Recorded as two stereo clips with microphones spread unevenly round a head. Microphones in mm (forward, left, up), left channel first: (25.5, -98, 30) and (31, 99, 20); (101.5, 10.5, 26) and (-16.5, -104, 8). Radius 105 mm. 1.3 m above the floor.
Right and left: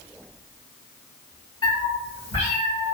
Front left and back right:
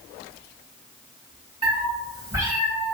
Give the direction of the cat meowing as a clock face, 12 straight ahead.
4 o'clock.